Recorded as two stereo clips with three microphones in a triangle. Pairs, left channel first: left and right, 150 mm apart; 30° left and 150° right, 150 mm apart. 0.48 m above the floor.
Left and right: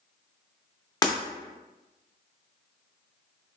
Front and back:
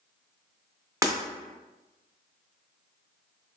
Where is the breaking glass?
150° left, 0.5 m.